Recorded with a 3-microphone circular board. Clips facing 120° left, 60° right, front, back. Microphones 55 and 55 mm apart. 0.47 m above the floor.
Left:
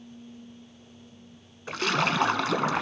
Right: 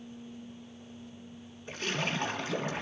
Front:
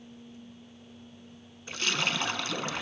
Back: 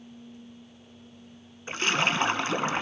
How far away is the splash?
About 1.6 m.